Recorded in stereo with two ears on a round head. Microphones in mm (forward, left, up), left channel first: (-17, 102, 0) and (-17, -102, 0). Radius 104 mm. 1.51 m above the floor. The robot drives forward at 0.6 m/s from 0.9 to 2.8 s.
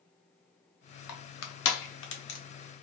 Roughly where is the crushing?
Left.